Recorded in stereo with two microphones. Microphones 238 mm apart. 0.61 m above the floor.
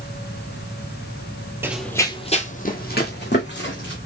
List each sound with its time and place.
1.6 s running footsteps: 10° right (ahead or behind), 0.7 m; by 4.0 s 50° left (ahead or behind), 2 m